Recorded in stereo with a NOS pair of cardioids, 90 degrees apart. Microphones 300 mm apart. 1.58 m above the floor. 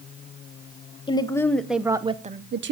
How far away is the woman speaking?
About 1.3 m.